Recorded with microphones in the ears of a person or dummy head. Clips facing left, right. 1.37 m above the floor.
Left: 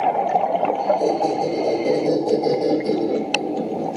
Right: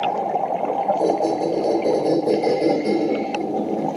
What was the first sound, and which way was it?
A squeak, 30° right (ahead or behind).